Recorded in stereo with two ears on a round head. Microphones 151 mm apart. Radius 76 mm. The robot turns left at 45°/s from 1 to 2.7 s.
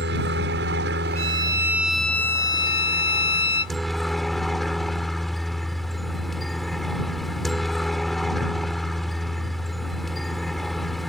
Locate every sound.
0.0 s a helicopter: 105° right; by 11.1 s straight behind
1.1 s a violin: 145° right; by 3.8 s 145° left